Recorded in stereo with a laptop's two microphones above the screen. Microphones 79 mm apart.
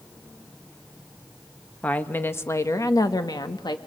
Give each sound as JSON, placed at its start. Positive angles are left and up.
{"t": 1.8, "sound": "a woman speaking", "side_deg": 15, "distance_m": 1.4}